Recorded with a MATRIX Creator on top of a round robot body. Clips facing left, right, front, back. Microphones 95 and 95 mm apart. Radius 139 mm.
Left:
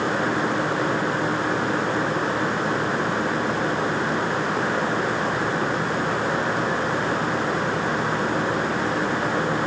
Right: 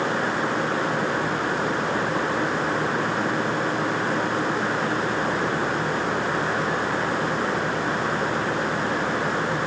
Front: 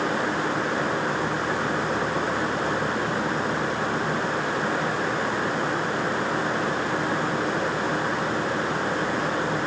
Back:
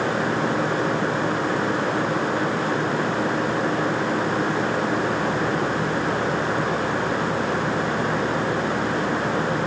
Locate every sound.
Only background noise.